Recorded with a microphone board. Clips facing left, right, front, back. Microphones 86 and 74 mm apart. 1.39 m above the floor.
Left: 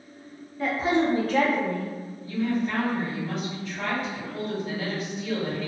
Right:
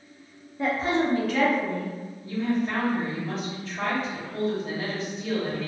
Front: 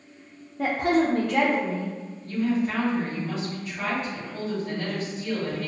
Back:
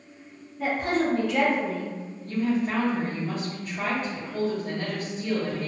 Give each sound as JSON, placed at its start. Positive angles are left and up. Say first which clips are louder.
{"t": 0.6, "sound": "a woman speaking", "louder": "left 1 dB, front 3 dB", "azimuth_deg": -10, "distance_m": 0.6}
{"t": 2.2, "sound": "a woman speaking", "louder": "even, front 1 dB", "azimuth_deg": -140, "distance_m": 1.3}